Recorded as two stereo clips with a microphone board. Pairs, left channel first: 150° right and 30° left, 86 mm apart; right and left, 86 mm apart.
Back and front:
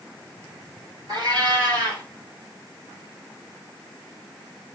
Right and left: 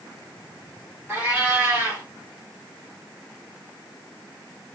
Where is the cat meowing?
25° left, 3 m.